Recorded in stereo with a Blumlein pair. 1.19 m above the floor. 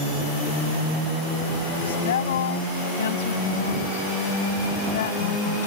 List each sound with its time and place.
1.8 s a woman speaking: 60° left